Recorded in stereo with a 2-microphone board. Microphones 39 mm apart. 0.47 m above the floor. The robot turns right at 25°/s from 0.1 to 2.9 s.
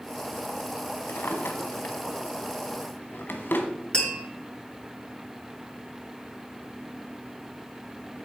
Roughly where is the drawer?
Left.